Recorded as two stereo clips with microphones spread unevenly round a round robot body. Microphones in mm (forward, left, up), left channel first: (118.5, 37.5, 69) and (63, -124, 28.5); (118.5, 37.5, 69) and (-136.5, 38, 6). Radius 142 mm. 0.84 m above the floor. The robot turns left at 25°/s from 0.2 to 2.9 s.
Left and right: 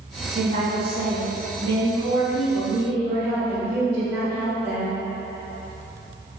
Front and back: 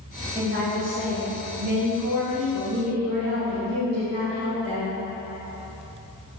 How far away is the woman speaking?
About 1.3 m.